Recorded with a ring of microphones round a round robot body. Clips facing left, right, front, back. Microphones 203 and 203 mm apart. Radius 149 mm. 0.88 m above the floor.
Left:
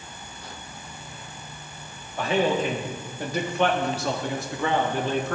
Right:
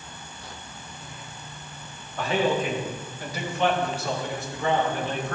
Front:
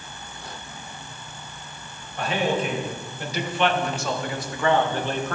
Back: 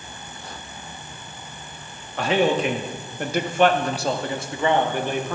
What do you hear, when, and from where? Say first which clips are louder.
2.2 s a man speaking: left 1 dB, back 4 dB; 170° left, 1.4 m; by 5.3 s 100° left, 1.8 m